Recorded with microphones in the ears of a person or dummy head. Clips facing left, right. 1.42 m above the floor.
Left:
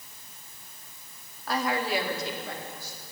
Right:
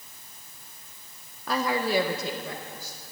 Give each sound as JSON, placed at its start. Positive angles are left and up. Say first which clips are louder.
{"t": 1.5, "sound": "a woman speaking", "louder": "right 2 dB", "side_deg": -70, "distance_m": 1.0}